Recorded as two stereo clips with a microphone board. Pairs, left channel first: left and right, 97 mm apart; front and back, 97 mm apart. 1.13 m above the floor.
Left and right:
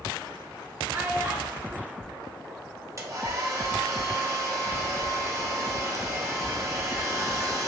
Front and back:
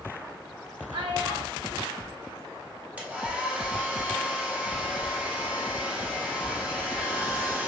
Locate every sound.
0.9 s a child speaking: 160° right, 1.0 m
3.0 s a hair dryer: 115° right, 0.8 m